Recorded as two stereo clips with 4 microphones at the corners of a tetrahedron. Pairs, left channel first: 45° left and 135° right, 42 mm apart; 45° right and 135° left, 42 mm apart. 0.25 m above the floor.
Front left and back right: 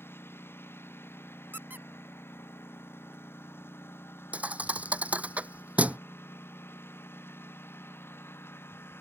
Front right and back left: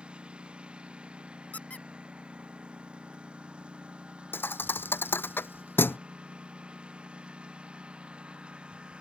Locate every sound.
0.0 s a lawn mower: 70° left
1.5 s a squeak: 100° right
4.3 s a thud: 80° right